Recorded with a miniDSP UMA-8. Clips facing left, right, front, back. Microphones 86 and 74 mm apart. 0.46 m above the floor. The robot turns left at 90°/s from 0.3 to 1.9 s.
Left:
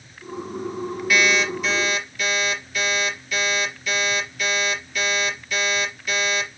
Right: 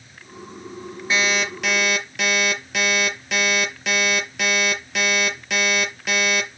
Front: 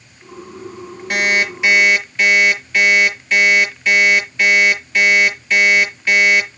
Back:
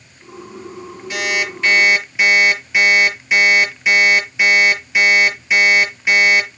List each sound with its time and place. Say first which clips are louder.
1.1 s an alarm clock: left 2 dB, front 4 dB; 30° right, 6 m; by 6.6 s 100° right, 6 m